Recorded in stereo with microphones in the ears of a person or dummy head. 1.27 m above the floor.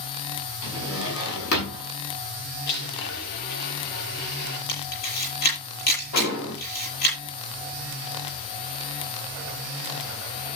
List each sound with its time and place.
0.6 s a drawer: 80° left, 6 m
2.7 s a blender: 65° left (ahead or behind), 7 m
4.7 s a camera shutter: 50° left (ahead or behind), 8 m
6.1 s an explosion: 75° left (ahead or behind), 9 m